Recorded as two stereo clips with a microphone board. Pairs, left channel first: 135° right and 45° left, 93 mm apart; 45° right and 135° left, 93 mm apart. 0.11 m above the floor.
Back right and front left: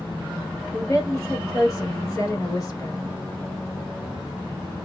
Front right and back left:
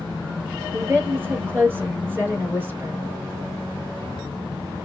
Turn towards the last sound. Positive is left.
turn(degrees=-170)